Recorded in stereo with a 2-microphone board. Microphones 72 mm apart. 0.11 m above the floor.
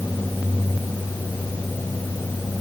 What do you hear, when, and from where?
Only background noise.